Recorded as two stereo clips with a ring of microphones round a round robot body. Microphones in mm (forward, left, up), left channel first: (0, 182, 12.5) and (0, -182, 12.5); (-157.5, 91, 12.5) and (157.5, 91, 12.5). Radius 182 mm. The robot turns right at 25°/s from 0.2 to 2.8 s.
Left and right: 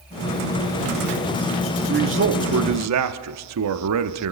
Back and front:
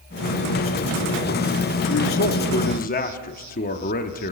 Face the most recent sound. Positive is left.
turn(degrees=-120)